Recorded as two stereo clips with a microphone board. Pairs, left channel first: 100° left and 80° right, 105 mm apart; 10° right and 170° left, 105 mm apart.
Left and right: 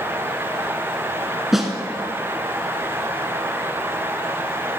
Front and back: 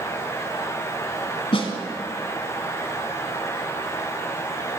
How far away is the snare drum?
About 1.2 m.